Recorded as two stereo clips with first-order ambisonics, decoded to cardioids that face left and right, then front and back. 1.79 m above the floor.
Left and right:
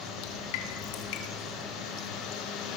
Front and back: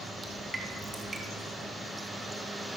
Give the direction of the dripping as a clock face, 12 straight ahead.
9 o'clock.